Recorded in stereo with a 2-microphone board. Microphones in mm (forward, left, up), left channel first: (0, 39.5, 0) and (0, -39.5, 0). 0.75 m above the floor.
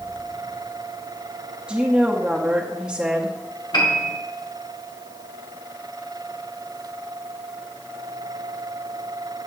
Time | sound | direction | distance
1.7 | a woman speaking | 10° right (ahead or behind) | 0.9 m
3.7 | a piano | 70° left (ahead or behind) | 1.8 m